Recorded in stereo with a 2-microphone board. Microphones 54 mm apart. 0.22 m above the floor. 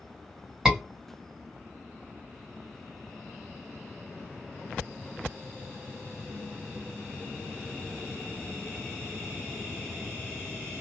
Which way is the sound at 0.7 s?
10° right (ahead or behind).